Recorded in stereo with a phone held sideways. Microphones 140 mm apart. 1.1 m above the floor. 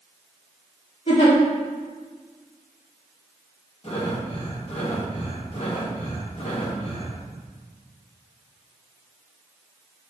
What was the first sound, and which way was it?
A giggle, 50° left (ahead or behind).